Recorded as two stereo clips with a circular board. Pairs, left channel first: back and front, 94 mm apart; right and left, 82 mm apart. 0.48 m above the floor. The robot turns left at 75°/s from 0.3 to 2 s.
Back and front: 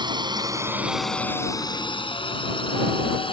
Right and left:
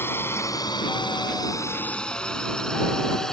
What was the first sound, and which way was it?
A drone, 30° right.